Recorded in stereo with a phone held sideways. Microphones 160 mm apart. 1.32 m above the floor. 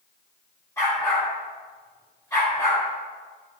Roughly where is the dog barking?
Centre.